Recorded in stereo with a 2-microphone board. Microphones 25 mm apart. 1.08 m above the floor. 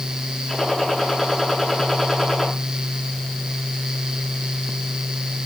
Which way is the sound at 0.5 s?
10° left (ahead or behind).